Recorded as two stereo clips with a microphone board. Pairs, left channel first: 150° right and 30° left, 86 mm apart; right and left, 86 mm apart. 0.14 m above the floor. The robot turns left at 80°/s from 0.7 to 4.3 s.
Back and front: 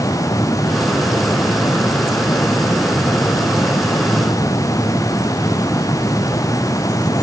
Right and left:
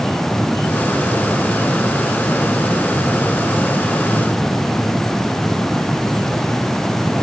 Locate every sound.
Only background noise.